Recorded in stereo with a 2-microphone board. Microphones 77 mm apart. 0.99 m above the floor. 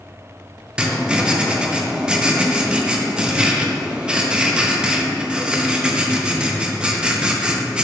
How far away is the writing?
About 0.6 m.